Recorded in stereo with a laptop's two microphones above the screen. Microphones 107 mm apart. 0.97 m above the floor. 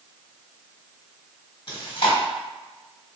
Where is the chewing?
55° left (ahead or behind), 1.2 m.